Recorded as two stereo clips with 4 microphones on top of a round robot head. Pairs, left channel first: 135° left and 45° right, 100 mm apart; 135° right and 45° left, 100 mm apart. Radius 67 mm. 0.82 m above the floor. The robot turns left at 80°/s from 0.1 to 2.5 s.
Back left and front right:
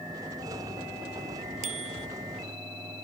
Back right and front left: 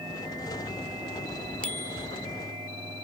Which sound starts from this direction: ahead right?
A bicycle bell, at 1.6 s.